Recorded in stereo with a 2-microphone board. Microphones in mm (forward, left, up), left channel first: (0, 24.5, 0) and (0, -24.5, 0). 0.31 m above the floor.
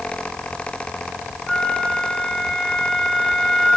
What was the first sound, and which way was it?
A flute, 5° left (ahead or behind).